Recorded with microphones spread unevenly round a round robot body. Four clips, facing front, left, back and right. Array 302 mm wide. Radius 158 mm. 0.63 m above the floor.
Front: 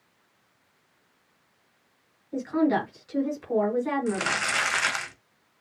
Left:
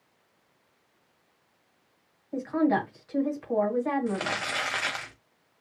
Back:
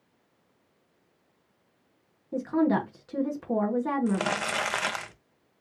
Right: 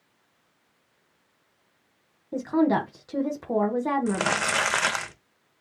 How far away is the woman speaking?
About 1.8 m.